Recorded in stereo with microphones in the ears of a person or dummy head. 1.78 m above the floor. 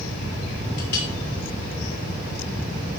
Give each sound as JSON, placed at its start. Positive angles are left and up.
{"t": 0.8, "sound": "a clink", "side_deg": 65, "distance_m": 3.5}